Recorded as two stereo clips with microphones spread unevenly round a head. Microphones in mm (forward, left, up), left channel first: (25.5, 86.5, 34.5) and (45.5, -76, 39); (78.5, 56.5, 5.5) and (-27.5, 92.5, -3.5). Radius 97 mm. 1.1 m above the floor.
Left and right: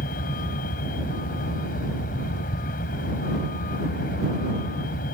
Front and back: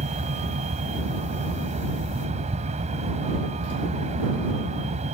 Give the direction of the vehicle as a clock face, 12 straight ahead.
7 o'clock.